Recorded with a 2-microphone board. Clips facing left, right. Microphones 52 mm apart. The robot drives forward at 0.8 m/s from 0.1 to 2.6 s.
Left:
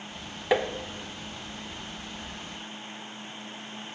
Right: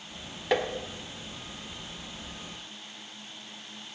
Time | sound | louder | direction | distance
0.5 | tapping | left 2 dB | 10° left (ahead or behind) | 1.0 m